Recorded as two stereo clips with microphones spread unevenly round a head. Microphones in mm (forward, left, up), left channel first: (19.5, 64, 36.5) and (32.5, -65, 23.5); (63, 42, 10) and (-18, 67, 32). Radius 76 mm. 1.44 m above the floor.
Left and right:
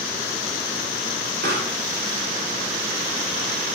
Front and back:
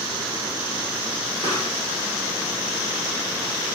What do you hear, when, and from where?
1.4 s a pop: 85° right, 1.8 m